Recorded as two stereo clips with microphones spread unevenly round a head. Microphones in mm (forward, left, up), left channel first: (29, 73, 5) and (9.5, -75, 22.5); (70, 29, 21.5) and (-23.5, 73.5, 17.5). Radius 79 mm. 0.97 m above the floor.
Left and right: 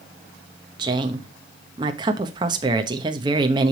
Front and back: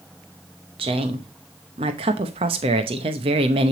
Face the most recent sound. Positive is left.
turn(degrees=-165)